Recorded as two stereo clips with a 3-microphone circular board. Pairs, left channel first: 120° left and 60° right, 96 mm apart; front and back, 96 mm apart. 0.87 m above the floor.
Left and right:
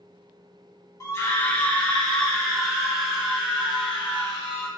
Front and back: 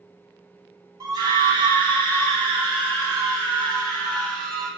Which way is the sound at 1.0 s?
160° left.